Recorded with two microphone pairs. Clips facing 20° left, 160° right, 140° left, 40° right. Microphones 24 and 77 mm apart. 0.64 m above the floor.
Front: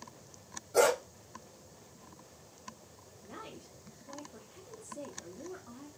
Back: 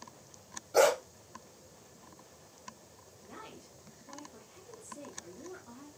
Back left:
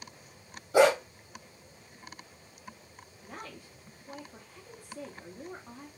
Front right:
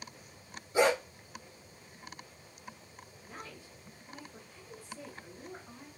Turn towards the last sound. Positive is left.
turn(degrees=115)